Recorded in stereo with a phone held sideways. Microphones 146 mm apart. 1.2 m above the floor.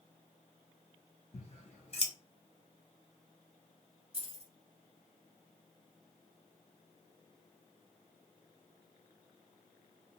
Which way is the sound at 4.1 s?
40° right (ahead or behind).